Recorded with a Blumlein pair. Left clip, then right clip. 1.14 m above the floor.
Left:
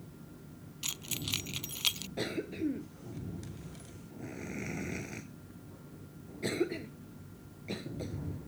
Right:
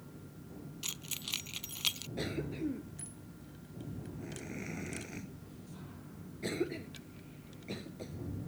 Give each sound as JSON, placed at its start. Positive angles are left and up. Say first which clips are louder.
{"t": 0.8, "sound": "keys jangling", "louder": "left 3 dB", "azimuth_deg": 5}
{"t": 2.2, "sound": "a cough", "louder": "left 3 dB", "azimuth_deg": 10}